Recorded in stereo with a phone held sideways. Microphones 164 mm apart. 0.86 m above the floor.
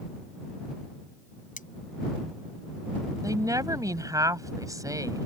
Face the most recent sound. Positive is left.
turn(degrees=-20)  # may be behind; listen again after turning